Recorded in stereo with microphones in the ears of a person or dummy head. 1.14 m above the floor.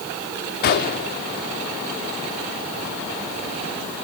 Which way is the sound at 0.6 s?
50° left (ahead or behind).